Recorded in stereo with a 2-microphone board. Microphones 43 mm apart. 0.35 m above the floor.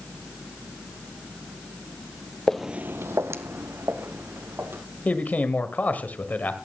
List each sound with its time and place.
2.5 s footsteps: 10° left (ahead or behind), 0.6 m; by 4.8 s 60° right (ahead or behind), 3 m
5.0 s a man speaking: 35° left (ahead or behind), 1.5 m